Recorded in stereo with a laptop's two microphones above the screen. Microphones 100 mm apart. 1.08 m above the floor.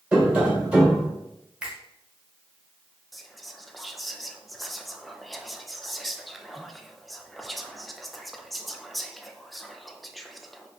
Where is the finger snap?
10° right (ahead or behind), 1.3 m.